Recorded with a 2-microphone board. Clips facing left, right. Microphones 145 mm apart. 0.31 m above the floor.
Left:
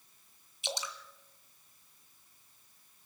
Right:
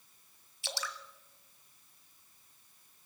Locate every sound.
0.6 s dripping: 20° left (ahead or behind), 1.8 m